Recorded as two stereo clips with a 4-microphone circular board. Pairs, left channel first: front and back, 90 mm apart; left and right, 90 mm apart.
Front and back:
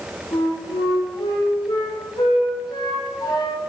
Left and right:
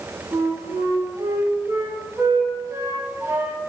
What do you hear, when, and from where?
0.3 s a flute: 35° right, 6 m